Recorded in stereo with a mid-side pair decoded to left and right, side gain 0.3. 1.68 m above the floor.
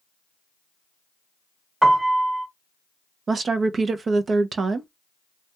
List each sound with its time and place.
1.8 s a piano: 30° right, 1.3 m
3.3 s a woman speaking: 65° right, 0.6 m